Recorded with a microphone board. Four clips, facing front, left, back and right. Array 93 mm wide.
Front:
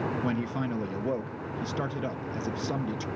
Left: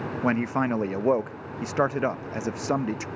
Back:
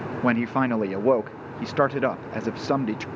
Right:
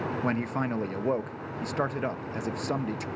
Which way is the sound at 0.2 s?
160° left.